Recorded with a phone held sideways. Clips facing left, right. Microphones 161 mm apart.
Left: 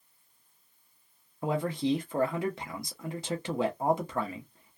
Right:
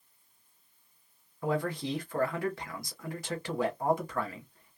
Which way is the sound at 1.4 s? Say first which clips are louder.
Left 2 dB; 20° left (ahead or behind).